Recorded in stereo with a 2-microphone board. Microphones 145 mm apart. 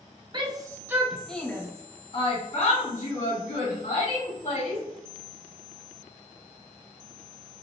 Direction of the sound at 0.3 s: 35° right (ahead or behind).